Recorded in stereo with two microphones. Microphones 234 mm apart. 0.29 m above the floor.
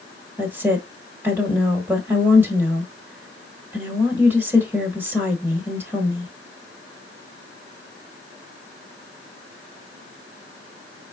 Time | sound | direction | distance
0.4 | a woman speaking | 10° right (ahead or behind) | 1.2 m